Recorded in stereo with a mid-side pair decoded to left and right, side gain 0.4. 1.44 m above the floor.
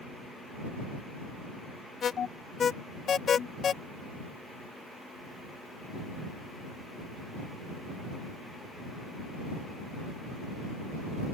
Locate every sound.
2.0 s an alarm: 50° left